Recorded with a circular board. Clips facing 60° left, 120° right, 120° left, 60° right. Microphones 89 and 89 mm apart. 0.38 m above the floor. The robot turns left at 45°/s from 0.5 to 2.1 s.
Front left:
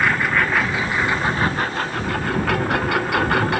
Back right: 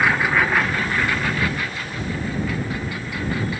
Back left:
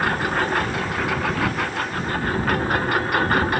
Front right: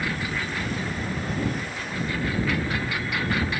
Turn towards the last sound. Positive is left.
turn(degrees=80)